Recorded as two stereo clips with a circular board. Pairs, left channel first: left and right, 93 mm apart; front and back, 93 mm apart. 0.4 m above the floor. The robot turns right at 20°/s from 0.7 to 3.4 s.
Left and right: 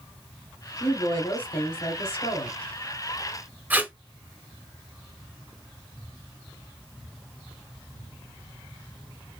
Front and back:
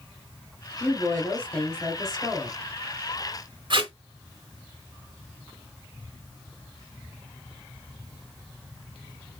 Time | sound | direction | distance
0.8 | a woman speaking | 65° left | 2.5 m
3.7 | tape being pulled | 160° right | 1.0 m